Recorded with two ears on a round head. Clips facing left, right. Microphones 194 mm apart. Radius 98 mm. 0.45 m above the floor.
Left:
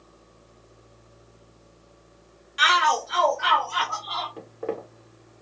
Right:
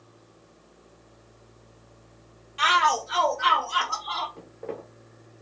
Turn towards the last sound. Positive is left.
turn(degrees=60)  # may be behind; listen again after turning